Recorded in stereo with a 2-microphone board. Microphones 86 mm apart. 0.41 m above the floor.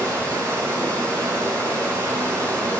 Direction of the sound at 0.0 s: 35° right (ahead or behind).